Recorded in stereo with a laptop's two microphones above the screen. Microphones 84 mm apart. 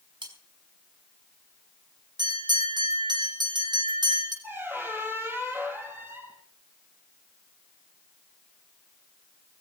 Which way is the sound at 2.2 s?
60° right (ahead or behind).